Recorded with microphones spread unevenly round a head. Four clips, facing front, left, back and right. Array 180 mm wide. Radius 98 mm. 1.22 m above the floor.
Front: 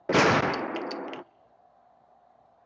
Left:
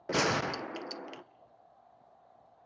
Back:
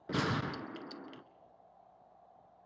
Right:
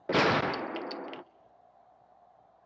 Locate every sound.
0.1 s a gunshot: 15° right, 0.5 m